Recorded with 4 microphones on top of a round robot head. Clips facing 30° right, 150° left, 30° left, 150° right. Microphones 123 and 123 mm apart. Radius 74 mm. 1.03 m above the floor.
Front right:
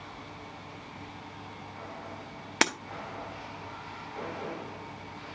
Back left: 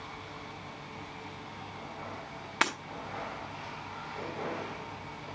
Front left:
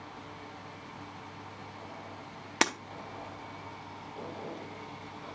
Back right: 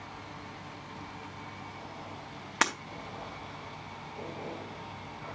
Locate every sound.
2.6 s breaking glass: 10° right, 0.5 m